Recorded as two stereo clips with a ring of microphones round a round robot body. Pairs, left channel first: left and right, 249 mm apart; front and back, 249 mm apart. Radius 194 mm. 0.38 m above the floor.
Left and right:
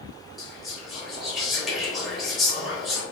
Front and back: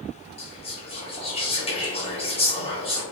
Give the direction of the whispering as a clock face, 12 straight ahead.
12 o'clock.